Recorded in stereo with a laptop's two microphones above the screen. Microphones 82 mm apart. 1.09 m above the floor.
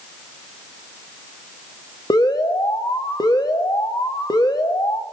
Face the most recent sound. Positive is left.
turn(degrees=60)  # may be behind; listen again after turning